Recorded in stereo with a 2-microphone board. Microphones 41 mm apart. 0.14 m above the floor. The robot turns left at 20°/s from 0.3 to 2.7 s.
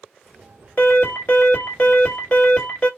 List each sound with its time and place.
0.8 s an alarm: 80° left, 2.5 m; by 2.9 s 40° left, 2.5 m